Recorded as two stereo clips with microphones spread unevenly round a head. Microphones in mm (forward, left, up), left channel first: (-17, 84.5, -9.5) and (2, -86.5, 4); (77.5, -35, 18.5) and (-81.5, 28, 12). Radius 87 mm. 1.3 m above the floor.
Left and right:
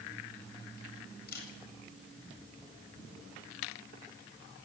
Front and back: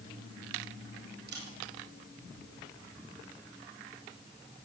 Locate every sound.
1.3 s a camera shutter: 130° left, 8.5 m